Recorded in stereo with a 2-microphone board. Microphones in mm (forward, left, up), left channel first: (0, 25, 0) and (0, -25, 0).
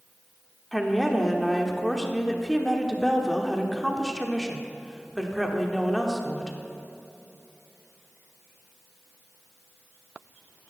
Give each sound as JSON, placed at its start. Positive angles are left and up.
{"t": 0.7, "sound": "a woman speaking", "side_deg": 0, "distance_m": 1.1}